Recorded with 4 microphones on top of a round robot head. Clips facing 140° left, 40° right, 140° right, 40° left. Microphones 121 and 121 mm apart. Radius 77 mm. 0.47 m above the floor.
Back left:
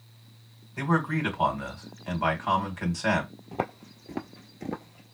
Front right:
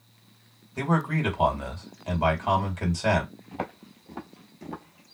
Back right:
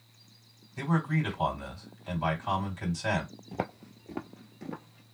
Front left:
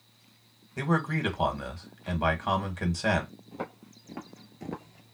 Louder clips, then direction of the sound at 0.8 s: Front right 1 dB, front left 1 dB; 25° left.